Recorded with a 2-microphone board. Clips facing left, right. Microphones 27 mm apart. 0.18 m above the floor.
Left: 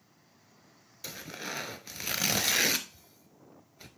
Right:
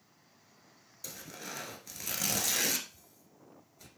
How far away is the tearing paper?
About 0.8 m.